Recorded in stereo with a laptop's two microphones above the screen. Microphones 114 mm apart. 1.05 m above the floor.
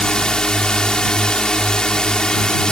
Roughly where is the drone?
Centre.